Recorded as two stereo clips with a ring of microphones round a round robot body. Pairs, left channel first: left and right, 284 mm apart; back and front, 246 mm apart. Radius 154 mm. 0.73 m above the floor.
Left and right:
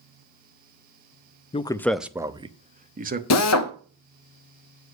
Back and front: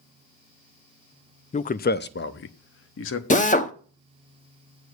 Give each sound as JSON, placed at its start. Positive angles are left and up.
{"t": 1.5, "sound": "a man speaking", "azimuth_deg": 140, "distance_m": 0.5}
{"t": 3.3, "sound": "a drill", "azimuth_deg": 120, "distance_m": 1.0}